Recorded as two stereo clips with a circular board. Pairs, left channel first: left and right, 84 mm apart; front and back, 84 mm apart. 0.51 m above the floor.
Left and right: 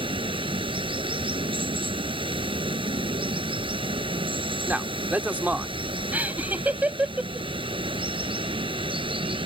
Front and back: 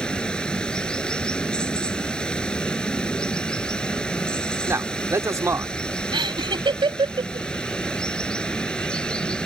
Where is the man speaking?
150° right.